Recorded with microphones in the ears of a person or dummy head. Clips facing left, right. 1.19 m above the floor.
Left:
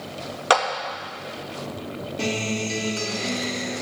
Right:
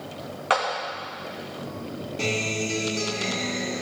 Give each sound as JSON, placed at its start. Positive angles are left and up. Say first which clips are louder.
{"t": 0.5, "sound": "a clap", "louder": "left 4 dB", "side_deg": 60, "distance_m": 1.5}
{"t": 2.2, "sound": "a guitar", "louder": "left 2 dB", "side_deg": 10, "distance_m": 1.9}